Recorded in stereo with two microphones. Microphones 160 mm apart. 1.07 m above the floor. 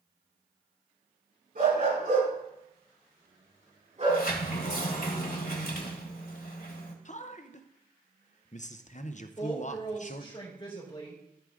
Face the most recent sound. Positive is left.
turn(degrees=30)  # may be behind; listen again after turning